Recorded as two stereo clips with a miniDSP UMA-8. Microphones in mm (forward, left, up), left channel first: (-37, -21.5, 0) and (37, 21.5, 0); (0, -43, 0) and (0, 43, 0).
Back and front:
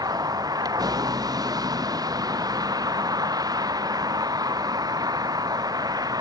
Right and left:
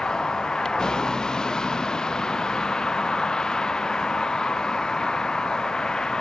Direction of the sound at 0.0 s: 10° right.